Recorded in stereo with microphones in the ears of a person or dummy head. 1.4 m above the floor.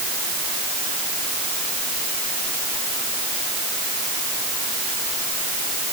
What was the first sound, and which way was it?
Only background noise.